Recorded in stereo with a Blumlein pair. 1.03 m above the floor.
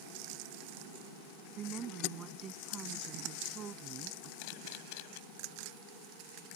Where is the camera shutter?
45° left.